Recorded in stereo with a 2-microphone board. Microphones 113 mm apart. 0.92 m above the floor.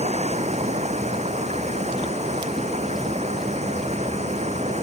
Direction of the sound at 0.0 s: 85° right.